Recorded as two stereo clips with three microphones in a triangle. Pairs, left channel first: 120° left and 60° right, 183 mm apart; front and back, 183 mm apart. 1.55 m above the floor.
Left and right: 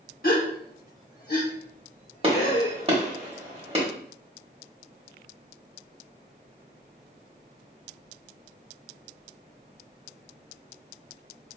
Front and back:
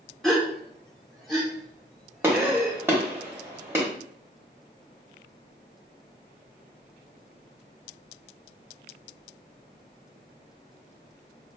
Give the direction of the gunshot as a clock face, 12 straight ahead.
3 o'clock.